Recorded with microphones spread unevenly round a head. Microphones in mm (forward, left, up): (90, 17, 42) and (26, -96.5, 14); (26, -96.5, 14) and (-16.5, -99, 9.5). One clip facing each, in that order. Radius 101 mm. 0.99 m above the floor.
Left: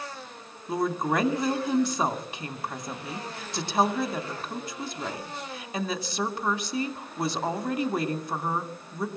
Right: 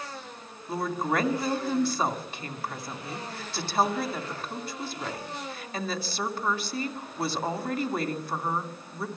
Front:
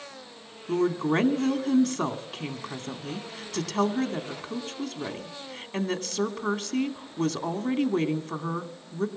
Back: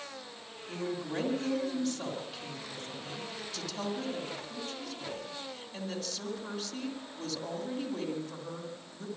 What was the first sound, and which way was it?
A woman speaking, 15° right.